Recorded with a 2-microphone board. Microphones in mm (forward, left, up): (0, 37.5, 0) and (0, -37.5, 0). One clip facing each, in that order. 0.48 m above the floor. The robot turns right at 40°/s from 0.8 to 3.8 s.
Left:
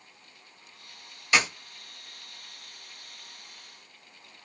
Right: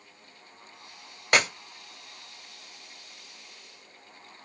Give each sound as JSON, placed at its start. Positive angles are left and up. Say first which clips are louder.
{"t": 1.3, "sound": "a clap", "louder": "right 1 dB", "side_deg": -50, "distance_m": 1.7}